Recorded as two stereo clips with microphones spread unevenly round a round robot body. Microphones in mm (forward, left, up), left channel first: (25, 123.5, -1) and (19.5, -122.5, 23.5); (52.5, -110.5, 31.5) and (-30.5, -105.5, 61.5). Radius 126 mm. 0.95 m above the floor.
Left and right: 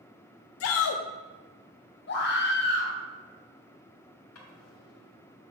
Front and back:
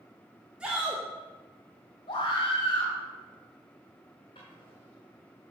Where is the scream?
45° left, 2 m.